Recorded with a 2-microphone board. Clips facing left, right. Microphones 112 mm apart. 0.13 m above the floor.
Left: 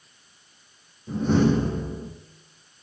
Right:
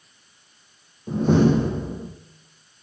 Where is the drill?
I don't hear a drill.